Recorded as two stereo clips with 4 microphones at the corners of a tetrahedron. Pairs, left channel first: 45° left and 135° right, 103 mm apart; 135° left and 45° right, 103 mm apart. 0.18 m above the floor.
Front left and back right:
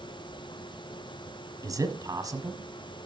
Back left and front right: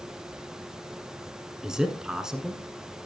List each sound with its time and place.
1.6 s a man speaking: 125° right, 1.3 m